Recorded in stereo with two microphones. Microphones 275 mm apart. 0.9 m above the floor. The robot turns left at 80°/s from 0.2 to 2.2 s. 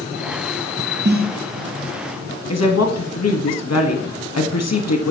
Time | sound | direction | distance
1.1 | a snare drum | 40° right (ahead or behind) | 0.5 m
2.5 | a woman speaking | 65° left (ahead or behind) | 1.1 m